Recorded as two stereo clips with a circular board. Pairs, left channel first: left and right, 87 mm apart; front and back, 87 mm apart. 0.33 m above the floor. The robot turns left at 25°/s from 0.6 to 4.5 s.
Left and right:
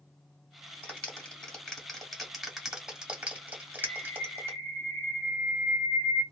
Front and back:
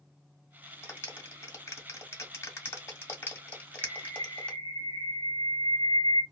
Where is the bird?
175° left, 0.7 m; by 6.2 s 155° left, 0.7 m.